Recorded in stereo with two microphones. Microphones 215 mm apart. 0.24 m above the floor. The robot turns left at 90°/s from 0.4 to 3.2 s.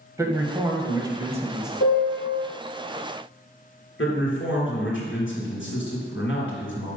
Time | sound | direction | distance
0.2 | a man speaking | 15° right (ahead or behind) | 1.0 m
1.8 | a piano | 85° left | 3 m
4.0 | a man speaking | 65° left (ahead or behind) | 2.5 m